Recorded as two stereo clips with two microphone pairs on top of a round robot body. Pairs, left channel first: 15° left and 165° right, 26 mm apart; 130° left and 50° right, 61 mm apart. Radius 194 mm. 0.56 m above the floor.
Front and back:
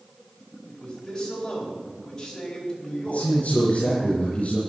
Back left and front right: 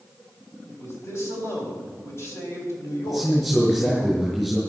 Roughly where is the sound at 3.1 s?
Ahead left.